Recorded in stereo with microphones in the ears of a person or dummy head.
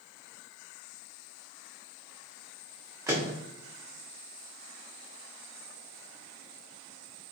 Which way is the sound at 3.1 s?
15° right (ahead or behind).